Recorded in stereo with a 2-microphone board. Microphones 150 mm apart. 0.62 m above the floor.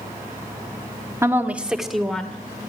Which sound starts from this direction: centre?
A woman speaking, at 1.2 s.